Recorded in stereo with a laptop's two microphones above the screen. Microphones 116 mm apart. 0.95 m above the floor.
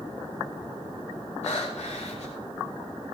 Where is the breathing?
65° left (ahead or behind), 5.5 m.